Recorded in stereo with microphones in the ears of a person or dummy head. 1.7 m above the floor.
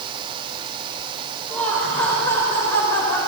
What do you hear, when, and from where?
1.5 s laughter: 5° left (ahead or behind), 5.5 m; by 3.2 s 15° left (ahead or behind), 6.5 m